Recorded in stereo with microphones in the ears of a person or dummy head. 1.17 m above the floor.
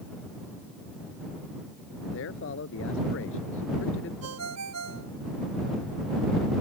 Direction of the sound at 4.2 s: 90° right.